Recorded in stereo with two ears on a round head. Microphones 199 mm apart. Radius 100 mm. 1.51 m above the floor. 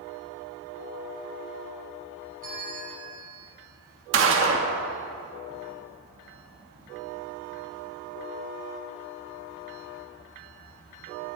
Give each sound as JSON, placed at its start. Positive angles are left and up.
{"t": 2.4, "sound": "a bell", "side_deg": -40, "distance_m": 5.5}
{"t": 4.1, "sound": "a gunshot", "side_deg": -65, "distance_m": 1.6}